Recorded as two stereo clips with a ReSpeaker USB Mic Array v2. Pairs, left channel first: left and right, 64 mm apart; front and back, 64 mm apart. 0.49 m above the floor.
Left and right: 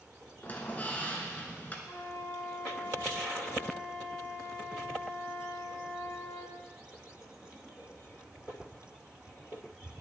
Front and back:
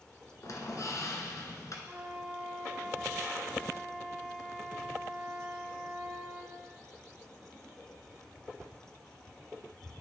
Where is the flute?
105° left, 1.3 m.